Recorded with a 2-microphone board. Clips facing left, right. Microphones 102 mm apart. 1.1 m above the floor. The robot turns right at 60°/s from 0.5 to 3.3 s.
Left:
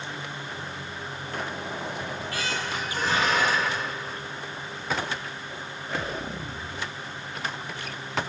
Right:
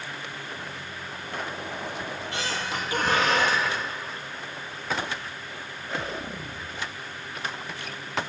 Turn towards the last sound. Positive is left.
turn(degrees=-95)